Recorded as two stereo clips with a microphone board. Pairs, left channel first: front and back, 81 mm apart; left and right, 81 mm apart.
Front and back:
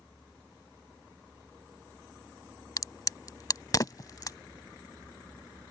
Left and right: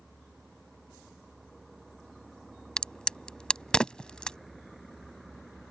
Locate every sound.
2.8 s a crack: 15° left